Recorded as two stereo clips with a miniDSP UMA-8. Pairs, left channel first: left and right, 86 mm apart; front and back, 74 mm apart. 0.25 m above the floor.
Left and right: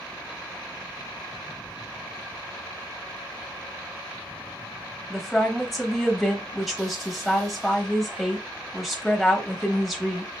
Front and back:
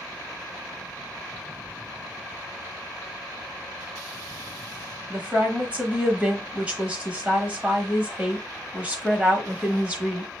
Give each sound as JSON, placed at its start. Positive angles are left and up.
{"t": 5.1, "sound": "a woman speaking", "azimuth_deg": 180, "distance_m": 0.9}